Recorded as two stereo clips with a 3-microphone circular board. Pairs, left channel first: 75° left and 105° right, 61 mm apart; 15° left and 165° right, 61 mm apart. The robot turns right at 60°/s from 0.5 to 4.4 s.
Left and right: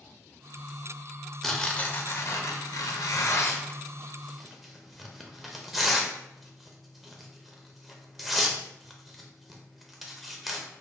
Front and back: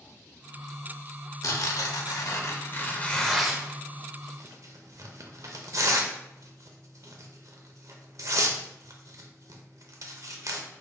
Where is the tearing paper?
10° right, 0.6 m; by 10.7 s 165° left, 0.6 m.